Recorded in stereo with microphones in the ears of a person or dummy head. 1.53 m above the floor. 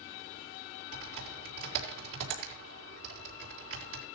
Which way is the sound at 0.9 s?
75° right (ahead or behind).